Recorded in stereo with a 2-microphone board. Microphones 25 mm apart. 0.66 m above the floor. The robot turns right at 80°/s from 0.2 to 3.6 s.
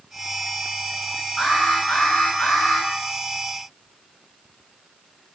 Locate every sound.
1.4 s an alarm: 40° left, 10 m; by 2.9 s 160° left, 10 m